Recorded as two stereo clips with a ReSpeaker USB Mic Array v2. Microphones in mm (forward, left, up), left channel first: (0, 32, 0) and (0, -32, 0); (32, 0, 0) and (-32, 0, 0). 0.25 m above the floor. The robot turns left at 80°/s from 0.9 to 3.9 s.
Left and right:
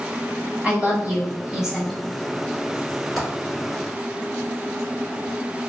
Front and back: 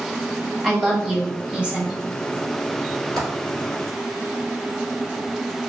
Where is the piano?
I don't hear a piano.